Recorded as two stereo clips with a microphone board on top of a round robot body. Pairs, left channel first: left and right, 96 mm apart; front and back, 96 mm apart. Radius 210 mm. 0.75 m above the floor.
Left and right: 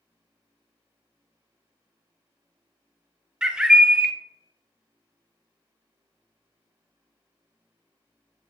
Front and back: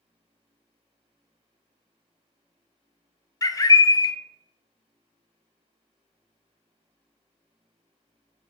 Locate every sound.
3.4 s a bird: 10° right, 0.5 m